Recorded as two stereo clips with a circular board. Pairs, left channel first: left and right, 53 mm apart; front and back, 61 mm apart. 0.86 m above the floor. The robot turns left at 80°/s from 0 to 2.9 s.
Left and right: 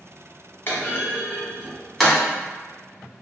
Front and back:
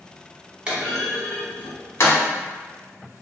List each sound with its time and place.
0.7 s a clunk: 110° left, 1.0 m; by 2.2 s 10° right, 1.0 m